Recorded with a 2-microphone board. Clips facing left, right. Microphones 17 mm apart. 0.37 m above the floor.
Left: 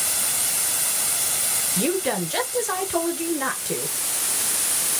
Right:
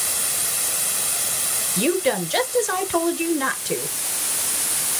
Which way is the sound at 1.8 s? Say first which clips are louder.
Right 4 dB; 40° right (ahead or behind).